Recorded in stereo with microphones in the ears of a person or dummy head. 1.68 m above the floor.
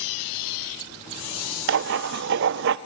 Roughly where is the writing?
Right.